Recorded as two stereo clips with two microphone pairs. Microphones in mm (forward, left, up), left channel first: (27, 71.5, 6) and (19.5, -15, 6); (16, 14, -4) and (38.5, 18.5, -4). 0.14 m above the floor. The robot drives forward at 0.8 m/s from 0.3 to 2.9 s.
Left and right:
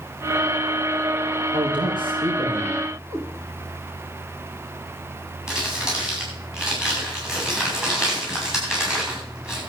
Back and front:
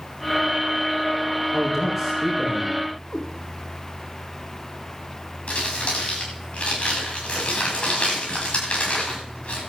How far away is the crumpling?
About 9 m.